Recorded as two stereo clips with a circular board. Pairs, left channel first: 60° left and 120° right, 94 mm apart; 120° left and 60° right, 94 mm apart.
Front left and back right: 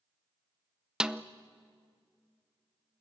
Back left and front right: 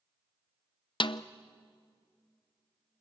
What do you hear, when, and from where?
1.0 s a snare drum: 160° left, 0.6 m